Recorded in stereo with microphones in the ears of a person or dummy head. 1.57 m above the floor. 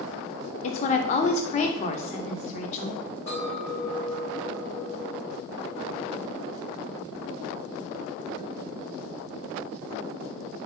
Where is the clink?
35° left (ahead or behind), 1.4 m.